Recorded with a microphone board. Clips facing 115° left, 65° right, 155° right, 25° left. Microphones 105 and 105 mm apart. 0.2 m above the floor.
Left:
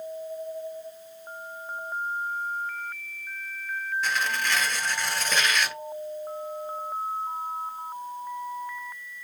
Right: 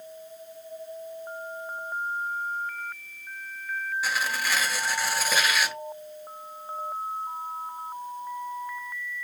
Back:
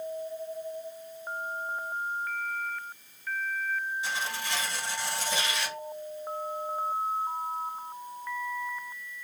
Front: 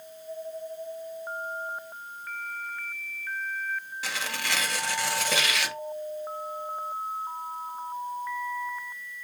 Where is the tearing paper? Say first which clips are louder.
Left 1 dB, even; 15° left, 0.7 m.